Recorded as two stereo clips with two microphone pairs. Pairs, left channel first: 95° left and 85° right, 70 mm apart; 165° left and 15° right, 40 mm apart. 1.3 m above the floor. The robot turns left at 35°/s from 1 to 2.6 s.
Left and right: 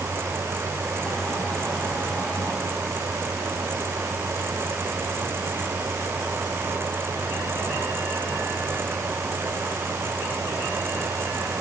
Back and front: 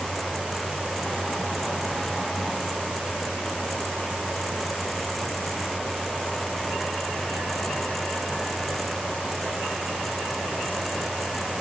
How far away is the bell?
No bell in this recording.